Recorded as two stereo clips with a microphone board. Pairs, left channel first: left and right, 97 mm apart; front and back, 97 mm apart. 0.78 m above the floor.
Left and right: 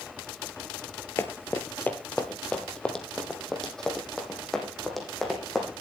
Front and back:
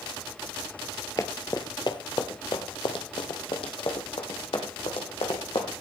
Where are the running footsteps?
35° left, 1.0 m; by 5.7 s straight ahead, 3 m.